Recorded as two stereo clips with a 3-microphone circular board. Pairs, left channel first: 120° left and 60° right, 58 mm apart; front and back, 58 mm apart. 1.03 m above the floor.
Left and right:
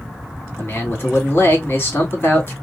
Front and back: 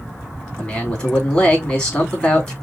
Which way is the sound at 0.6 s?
65° left.